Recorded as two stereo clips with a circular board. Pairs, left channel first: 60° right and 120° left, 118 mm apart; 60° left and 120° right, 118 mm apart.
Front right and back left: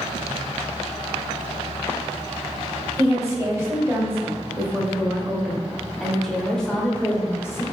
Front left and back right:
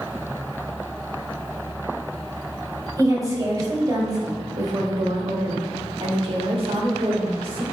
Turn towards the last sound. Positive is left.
turn(degrees=-120)